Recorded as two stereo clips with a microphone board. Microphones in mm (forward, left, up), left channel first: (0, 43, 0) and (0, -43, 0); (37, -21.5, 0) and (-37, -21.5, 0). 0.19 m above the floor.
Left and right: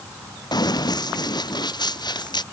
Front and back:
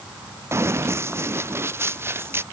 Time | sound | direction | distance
0.5 | running footsteps | 125° left | ?